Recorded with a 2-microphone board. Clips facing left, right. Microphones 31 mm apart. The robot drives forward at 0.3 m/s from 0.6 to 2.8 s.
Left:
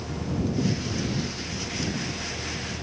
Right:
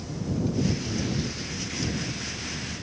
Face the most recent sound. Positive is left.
No sound to turn to.